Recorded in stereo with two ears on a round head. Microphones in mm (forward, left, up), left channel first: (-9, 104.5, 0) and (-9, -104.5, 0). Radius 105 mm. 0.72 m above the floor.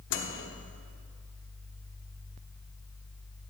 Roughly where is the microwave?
Left.